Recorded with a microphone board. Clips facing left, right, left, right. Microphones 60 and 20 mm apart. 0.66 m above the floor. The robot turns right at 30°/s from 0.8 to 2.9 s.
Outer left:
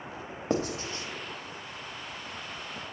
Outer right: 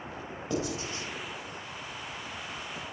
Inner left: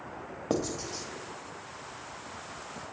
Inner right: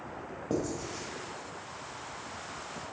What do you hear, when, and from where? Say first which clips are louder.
0.5 s writing: outer left 3 dB, inner left 2 dB; 45° left (ahead or behind), 0.7 m; by 1.1 s 50° left (ahead or behind), 0.7 m